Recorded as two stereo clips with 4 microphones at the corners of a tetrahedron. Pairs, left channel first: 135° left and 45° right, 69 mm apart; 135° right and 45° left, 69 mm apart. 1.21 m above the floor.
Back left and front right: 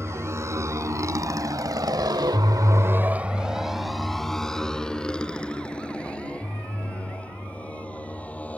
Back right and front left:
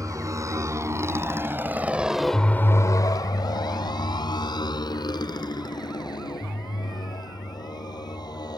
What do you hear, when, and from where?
0.0 s a motorcycle: 5° left; by 8.6 s 155° right